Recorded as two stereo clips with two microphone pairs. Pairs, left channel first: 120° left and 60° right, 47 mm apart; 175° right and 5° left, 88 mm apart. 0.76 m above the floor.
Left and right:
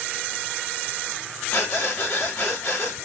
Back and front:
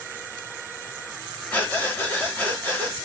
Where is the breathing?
110° left, 2 m.